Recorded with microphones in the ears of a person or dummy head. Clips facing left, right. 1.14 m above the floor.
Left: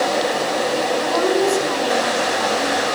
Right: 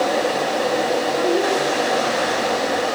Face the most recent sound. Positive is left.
turn(degrees=85)